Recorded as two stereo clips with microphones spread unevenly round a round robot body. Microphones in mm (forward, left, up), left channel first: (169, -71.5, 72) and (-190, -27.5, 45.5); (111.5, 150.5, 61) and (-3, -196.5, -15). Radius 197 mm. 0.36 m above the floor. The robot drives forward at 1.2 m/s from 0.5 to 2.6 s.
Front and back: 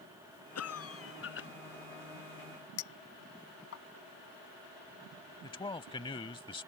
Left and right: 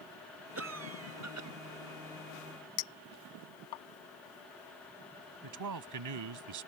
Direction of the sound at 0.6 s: 55° right.